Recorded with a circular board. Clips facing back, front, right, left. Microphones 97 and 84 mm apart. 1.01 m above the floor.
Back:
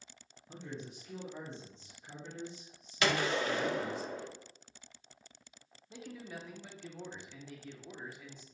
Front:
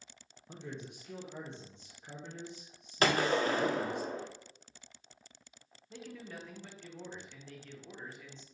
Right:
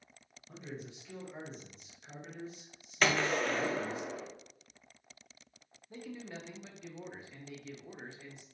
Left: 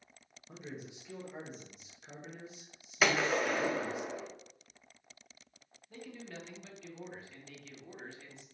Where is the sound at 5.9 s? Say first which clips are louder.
Even, right 2 dB; 115° right, 0.7 m.